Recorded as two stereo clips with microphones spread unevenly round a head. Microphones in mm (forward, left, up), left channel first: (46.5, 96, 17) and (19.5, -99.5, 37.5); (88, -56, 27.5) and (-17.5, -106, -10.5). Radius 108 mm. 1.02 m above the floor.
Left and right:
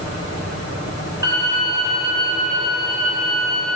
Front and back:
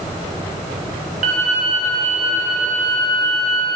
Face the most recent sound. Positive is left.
turn(degrees=-165)